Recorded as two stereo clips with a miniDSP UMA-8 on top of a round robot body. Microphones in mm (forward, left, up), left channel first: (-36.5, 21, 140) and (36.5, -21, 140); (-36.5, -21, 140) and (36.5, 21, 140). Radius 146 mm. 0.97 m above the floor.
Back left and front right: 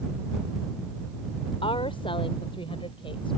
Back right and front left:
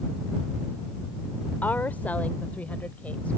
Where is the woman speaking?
140° left; by 3.4 s 135° left.